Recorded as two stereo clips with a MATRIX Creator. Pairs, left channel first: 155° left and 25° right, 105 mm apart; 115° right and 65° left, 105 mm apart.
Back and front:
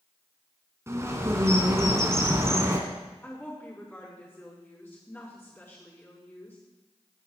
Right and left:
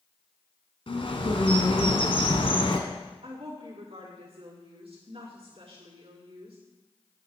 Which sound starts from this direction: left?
A woman speaking, at 3.2 s.